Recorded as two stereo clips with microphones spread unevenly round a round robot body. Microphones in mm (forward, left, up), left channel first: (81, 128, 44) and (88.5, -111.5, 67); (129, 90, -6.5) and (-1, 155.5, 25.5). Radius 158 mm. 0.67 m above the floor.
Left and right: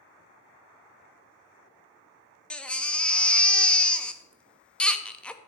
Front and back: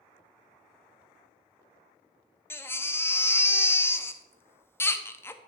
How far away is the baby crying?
About 0.6 m.